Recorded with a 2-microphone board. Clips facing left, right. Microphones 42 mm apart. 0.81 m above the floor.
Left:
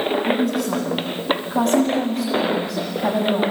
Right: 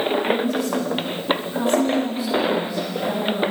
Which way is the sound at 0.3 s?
80° left.